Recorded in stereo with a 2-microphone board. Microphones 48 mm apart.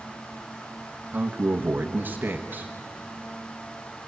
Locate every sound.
1.1 s a man speaking: 40° right (ahead or behind), 1.2 m